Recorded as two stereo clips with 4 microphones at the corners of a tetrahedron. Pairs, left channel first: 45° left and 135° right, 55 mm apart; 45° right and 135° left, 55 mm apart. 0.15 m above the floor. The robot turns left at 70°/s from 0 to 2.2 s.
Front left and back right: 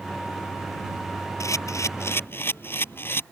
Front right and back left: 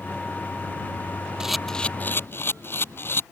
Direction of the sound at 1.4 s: 60° left.